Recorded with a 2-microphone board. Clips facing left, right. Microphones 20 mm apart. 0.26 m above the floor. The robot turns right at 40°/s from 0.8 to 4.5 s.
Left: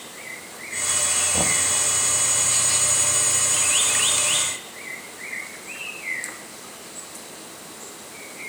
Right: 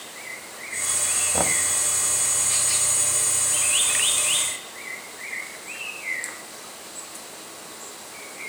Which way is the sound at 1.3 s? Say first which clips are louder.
Right 1 dB; 35° right (ahead or behind).